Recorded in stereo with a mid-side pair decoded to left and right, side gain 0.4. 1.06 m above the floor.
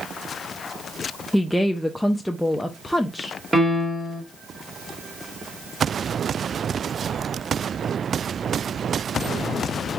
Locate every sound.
1.3 s a woman speaking: 5° left, 0.6 m
3.5 s a piano: 20° right, 1.5 m